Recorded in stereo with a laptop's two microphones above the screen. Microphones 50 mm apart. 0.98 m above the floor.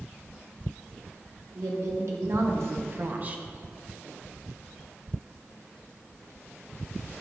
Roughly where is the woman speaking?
Right.